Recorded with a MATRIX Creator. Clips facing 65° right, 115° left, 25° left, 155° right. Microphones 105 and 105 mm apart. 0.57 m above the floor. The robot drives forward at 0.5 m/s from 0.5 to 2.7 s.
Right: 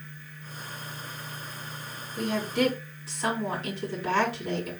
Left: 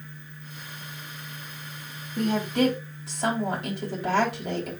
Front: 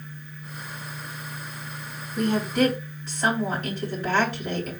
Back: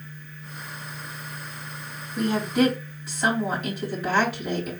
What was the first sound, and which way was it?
A woman speaking, 120° left.